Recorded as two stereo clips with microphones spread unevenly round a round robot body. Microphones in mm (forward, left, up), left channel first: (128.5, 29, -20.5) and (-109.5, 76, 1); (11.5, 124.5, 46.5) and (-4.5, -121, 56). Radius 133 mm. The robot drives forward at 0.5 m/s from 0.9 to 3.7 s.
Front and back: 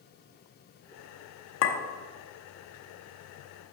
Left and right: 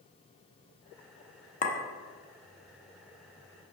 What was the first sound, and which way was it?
A clink, 25° left.